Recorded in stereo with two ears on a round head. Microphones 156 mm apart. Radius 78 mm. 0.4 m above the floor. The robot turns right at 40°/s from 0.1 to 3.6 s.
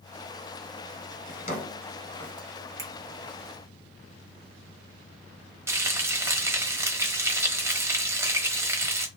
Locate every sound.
1.3 s a drawer: 55° left (ahead or behind), 2.5 m; by 2.3 s 10° left (ahead or behind), 2.5 m
2.8 s a finger snap: 20° right (ahead or behind), 1.7 m; by 2.9 s 25° right (ahead or behind), 1.7 m
5.7 s frying: 15° right (ahead or behind), 1.1 m